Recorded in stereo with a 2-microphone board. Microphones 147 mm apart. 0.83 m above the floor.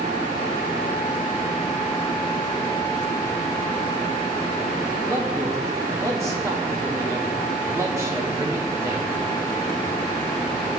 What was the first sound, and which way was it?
A man speaking, 20° right (ahead or behind).